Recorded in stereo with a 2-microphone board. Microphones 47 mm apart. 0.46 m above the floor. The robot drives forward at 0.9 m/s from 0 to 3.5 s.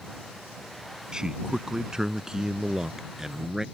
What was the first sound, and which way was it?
A man speaking, 15° right (ahead or behind).